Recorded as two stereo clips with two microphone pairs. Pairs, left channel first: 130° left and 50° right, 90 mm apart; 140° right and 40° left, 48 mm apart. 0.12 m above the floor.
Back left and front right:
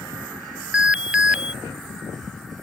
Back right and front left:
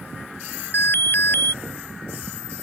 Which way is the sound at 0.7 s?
125° right.